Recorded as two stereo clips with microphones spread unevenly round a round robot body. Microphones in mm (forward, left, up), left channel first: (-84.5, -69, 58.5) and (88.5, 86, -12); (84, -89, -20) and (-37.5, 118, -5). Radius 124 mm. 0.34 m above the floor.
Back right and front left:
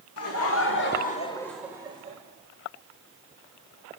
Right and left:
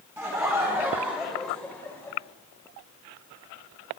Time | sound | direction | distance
0.2 | laughter | 160° right | 1.6 m